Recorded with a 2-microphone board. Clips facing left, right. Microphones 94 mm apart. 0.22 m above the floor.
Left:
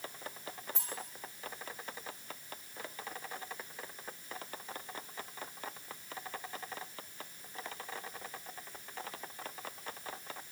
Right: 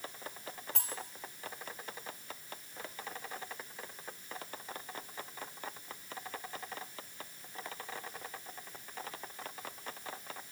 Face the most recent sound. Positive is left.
turn(degrees=-75)  # may be behind; listen again after turning